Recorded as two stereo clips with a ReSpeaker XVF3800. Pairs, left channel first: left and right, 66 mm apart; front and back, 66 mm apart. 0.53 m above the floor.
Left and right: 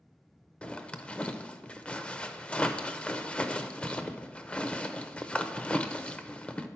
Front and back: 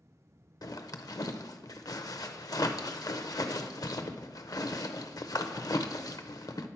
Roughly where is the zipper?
Ahead.